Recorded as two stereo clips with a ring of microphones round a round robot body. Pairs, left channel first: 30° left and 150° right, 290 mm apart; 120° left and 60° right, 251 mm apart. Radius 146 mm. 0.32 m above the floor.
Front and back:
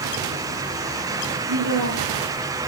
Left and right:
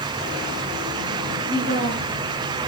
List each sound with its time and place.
1.5 s a woman speaking: 125° right, 5.5 m